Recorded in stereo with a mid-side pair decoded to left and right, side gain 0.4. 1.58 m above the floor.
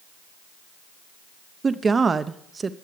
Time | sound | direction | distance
1.6 | a woman speaking | 35° right | 0.8 m